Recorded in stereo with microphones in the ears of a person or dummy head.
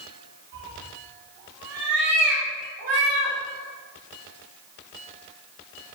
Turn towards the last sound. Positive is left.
turn(degrees=-75)  # may be behind; listen again after turning